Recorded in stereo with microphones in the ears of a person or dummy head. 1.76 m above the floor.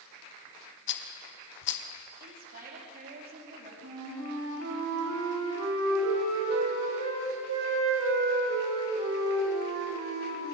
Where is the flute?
80° right, 9.5 m.